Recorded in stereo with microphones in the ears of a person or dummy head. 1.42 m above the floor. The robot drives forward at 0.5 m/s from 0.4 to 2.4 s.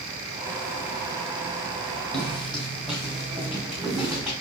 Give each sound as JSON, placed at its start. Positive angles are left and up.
{"t": 2.1, "sound": "footsteps", "side_deg": 5, "distance_m": 2.5}